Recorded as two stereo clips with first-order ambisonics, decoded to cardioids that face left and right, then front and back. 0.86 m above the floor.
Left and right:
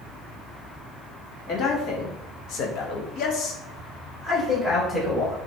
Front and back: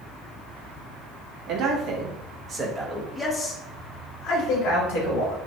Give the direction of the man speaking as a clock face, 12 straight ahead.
7 o'clock.